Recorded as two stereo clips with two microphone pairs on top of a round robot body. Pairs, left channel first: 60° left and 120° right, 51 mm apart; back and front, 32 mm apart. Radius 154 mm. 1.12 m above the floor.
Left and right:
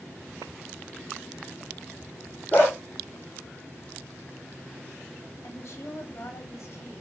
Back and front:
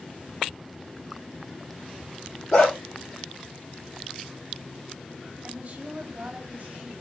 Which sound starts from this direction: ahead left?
A woman speaking, at 5.4 s.